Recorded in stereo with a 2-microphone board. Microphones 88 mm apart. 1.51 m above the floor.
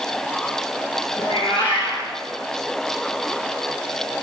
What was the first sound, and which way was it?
A cat meowing, 70° left (ahead or behind).